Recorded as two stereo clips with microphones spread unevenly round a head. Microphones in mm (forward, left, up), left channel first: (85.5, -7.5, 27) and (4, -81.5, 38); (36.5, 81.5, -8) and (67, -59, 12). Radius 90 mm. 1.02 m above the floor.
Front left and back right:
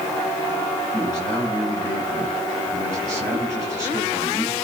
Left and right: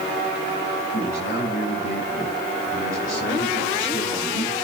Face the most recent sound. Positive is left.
turn(degrees=150)